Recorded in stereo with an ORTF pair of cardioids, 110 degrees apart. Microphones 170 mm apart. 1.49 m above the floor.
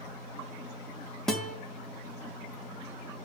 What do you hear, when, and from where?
1.3 s a guitar: 5° left, 2 m